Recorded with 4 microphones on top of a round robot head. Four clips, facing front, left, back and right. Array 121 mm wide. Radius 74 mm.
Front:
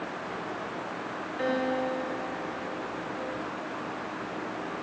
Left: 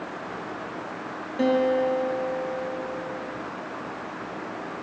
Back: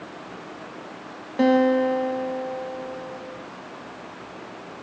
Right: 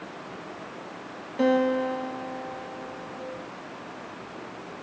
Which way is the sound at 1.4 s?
165° left.